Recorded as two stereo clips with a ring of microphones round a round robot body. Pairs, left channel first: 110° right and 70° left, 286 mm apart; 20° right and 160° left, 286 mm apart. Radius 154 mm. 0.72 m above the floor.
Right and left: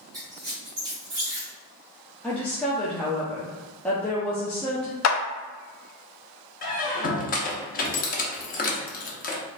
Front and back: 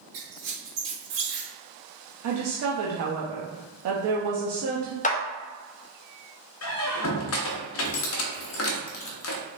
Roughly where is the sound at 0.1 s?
Behind left.